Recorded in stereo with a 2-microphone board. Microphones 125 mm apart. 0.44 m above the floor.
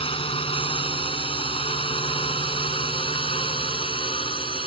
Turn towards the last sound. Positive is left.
turn(degrees=45)  # may be behind; listen again after turning